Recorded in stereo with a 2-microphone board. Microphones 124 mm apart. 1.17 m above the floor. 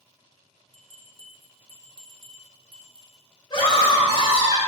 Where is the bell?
40° right (ahead or behind), 1.4 m.